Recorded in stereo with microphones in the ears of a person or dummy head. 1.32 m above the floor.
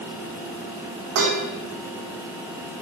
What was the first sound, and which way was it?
Dishes clattering, 75° right (ahead or behind).